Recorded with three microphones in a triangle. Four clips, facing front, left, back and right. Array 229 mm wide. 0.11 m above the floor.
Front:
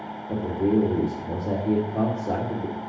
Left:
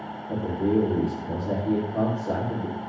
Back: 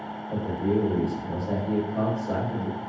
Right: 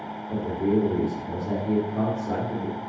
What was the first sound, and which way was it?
A man speaking, 15° left.